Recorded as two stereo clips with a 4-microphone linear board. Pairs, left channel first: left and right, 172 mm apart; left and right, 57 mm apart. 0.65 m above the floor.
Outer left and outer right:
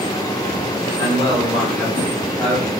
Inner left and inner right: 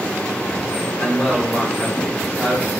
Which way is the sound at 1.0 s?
10° left (ahead or behind).